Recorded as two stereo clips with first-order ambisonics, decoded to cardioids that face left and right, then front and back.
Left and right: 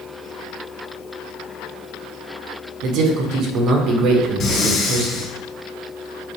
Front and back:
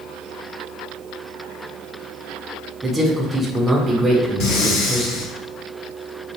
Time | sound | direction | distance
2.8 | a man speaking | 100° right | 1.0 m
4.4 | breathing | 35° left | 2.5 m